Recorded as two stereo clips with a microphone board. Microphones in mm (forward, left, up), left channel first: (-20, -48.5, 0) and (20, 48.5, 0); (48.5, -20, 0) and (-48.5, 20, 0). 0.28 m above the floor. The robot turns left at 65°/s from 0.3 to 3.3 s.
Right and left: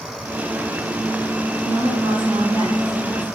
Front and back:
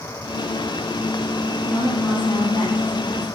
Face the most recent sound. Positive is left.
turn(degrees=-30)